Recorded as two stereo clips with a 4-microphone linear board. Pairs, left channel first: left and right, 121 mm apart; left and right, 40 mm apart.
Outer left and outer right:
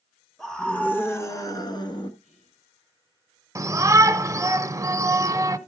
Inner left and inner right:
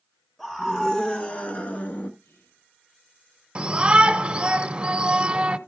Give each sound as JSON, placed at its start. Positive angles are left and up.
{"t": 0.4, "sound": "a scream", "side_deg": 0, "distance_m": 2.5}
{"t": 2.2, "sound": "whispering", "side_deg": 80, "distance_m": 8.0}
{"t": 3.5, "sound": "a shout", "side_deg": -25, "distance_m": 1.1}